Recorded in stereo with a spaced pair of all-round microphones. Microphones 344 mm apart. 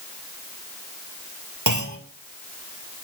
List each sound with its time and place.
1.7 s a clunk: 65° right (ahead or behind), 2.5 m